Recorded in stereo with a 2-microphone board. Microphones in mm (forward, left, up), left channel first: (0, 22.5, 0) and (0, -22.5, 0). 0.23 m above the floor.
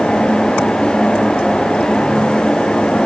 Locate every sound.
Only background noise.